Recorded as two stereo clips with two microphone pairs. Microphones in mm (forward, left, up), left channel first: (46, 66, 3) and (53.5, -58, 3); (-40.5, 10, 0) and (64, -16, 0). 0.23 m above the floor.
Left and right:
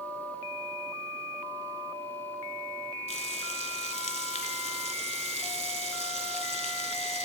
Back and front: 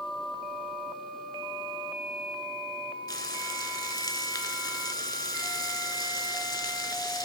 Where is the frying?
115° left, 0.6 m.